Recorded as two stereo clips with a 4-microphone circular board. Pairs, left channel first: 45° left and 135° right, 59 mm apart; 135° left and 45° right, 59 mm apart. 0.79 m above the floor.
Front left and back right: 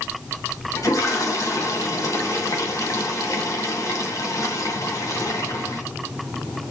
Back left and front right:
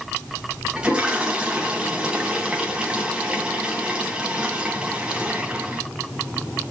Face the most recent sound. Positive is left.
turn(degrees=25)